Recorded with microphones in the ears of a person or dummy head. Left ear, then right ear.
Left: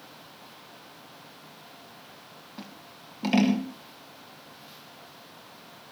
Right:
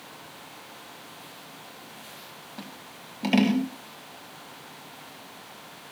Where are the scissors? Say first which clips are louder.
Right 3 dB; 10° right (ahead or behind), 1.7 m.